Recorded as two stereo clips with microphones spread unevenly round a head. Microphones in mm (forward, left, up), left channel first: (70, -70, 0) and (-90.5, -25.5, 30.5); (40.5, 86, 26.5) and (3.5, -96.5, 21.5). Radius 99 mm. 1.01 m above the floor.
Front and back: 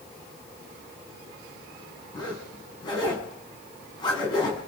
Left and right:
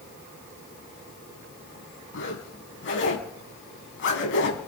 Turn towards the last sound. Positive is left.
turn(degrees=55)